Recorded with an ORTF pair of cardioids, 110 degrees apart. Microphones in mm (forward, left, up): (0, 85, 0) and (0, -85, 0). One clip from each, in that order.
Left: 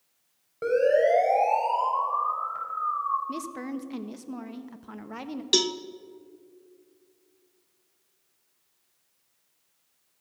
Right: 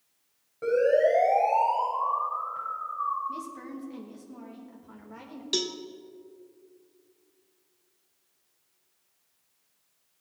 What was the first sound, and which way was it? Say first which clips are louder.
A siren: left 1 dB; 40° left.